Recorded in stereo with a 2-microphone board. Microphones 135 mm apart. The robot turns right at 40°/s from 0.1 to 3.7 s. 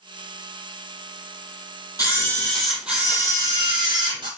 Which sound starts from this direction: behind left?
A camera shutter, at 2.0 s.